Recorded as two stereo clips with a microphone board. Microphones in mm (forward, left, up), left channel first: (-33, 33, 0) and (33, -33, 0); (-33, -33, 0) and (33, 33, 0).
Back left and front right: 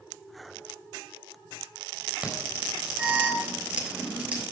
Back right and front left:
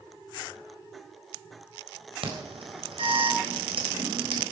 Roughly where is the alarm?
Ahead left.